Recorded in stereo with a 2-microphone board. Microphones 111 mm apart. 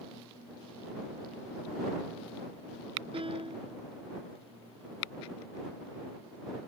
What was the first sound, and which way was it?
A piano, 55° right (ahead or behind).